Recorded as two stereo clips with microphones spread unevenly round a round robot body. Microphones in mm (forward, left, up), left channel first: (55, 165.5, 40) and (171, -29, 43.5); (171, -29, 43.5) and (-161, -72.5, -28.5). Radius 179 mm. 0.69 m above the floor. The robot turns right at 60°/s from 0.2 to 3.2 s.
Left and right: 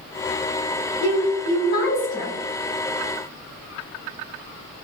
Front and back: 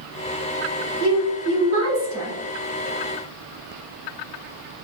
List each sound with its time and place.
1.0 s a woman speaking: 95° left, 1.4 m; by 2.4 s straight behind, 1.4 m